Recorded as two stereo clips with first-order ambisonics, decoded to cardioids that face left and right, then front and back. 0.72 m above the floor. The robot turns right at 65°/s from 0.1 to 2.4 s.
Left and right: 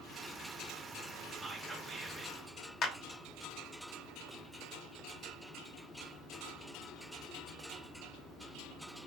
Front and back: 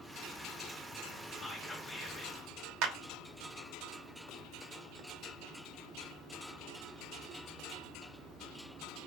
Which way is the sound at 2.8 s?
145° left.